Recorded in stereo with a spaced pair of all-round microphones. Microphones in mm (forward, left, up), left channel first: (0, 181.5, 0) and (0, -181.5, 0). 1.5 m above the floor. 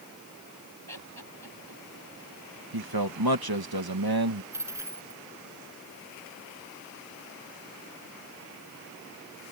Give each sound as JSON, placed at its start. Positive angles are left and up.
{"t": 0.9, "sound": "laughter", "side_deg": -75}
{"t": 2.7, "sound": "a man speaking", "side_deg": -80}
{"t": 4.5, "sound": "a dropped coin", "side_deg": -5}